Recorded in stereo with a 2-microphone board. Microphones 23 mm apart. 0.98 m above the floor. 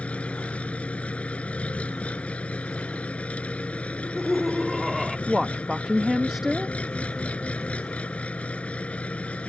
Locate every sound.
0.0 s an engine running: 70° left (ahead or behind)
3.9 s laughter: 5° right (ahead or behind)
5.3 s a woman speaking: 15° right (ahead or behind)